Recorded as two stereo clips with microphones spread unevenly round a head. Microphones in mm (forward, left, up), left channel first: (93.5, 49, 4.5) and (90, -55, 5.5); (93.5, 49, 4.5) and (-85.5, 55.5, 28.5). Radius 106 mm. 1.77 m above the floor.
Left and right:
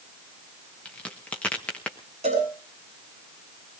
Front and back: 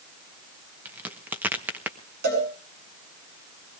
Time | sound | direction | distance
0.8 | a crack | 145° left | 0.9 m
2.2 | a cowbell | 145° right | 7.5 m